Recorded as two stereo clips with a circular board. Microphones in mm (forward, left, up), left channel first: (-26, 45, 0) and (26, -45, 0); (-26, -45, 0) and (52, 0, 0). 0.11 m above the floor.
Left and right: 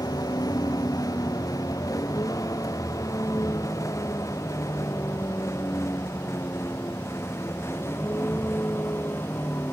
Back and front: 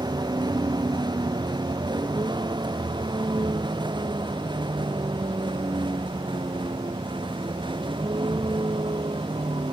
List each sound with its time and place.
0.0 s a vehicle: 65° left; by 9.7 s 55° left